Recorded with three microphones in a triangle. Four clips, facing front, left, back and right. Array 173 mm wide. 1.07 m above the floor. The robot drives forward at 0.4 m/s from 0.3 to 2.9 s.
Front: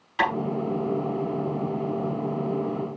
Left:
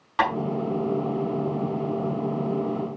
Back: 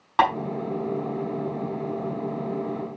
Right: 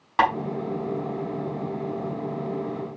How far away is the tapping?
About 5.5 m.